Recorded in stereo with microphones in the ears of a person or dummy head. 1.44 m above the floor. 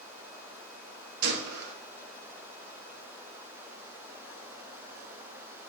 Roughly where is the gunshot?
Right.